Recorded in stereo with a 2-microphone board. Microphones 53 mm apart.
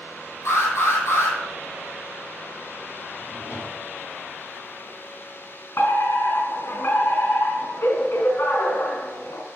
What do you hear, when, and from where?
0.5 s an alarm: 65° left (ahead or behind), 4 m
3.2 s a drawer: 70° left (ahead or behind), 4.5 m
5.8 s a fire alarm: 60° left (ahead or behind), 4 m